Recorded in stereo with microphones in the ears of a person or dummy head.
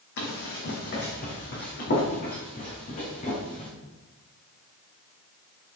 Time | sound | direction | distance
0.2 | running footsteps | 55° left (ahead or behind) | 3 m